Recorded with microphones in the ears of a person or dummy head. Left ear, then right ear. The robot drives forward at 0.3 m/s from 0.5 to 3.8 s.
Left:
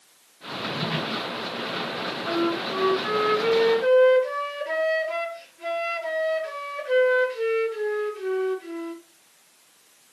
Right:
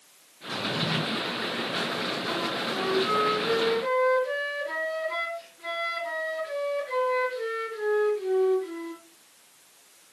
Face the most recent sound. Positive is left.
turn(degrees=40)  # may be behind; listen again after turning